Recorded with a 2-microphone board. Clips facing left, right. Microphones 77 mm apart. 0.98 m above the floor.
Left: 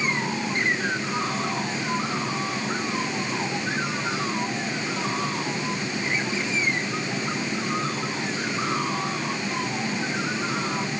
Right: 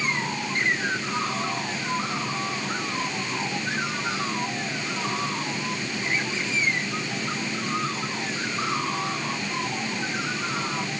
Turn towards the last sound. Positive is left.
No sound to turn to.